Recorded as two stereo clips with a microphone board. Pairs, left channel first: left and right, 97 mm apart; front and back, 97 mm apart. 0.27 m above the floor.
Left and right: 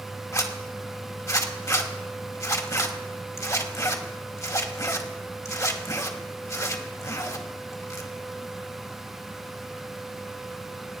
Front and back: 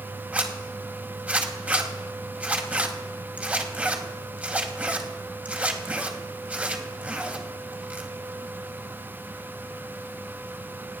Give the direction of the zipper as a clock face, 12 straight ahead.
8 o'clock.